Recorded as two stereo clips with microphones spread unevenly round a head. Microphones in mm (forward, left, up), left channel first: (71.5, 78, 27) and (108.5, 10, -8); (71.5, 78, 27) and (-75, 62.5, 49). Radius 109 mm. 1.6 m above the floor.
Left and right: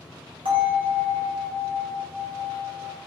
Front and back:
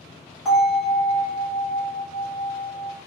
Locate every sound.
0.5 s a bell: 75° right, 2.0 m